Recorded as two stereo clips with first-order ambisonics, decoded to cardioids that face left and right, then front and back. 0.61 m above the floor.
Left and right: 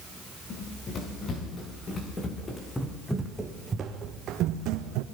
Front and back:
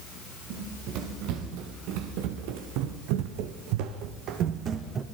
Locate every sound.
0.5 s running footsteps: 145° left, 6 m; by 5.0 s 115° right, 2.5 m